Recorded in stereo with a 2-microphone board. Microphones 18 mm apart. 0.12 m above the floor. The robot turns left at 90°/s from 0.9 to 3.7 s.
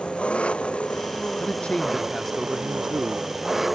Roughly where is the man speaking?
Left.